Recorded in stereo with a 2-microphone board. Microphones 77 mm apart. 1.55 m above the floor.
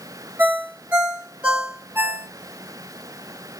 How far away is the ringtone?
About 2.5 m.